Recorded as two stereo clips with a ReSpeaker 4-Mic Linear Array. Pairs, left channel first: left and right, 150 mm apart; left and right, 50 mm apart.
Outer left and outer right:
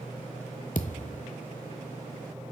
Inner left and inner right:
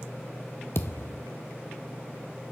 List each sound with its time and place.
0.8 s a thud: 65° left (ahead or behind), 0.8 m